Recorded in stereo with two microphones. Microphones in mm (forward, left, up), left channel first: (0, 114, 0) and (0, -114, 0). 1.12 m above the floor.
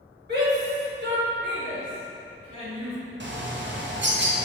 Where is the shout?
45° right (ahead or behind), 2 m; by 3.0 s 60° right (ahead or behind), 3.5 m.